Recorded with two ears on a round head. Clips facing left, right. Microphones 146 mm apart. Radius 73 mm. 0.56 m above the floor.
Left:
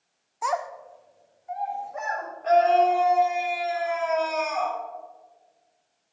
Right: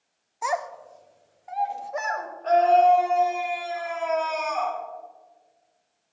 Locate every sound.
0.4 s a child speaking: 5° right (ahead or behind), 0.6 m; by 2.3 s 80° right, 1.8 m
2.4 s a scream: 10° left (ahead or behind), 2.5 m